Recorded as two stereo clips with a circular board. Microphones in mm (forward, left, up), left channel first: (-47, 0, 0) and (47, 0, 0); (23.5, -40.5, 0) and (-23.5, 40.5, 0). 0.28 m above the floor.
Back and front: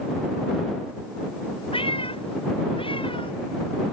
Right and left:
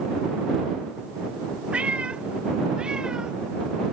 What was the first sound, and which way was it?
A cat meowing, 165° right.